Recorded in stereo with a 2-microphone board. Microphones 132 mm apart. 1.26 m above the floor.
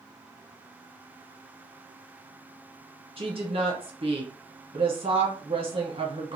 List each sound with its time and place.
3.2 s a woman speaking: 45° right (ahead or behind), 0.9 m